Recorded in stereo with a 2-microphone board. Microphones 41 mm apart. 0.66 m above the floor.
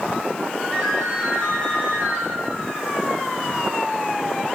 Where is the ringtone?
35° left (ahead or behind), 4 m.